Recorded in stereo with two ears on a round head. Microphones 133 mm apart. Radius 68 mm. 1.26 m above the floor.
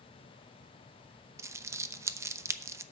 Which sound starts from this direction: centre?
Crumpling, at 1.4 s.